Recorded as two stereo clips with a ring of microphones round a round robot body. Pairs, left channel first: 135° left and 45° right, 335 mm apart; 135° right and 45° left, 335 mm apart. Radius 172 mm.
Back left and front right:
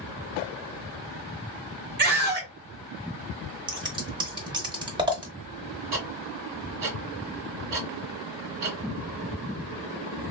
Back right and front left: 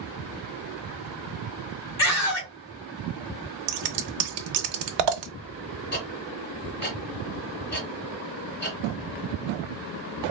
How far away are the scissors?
About 0.6 m.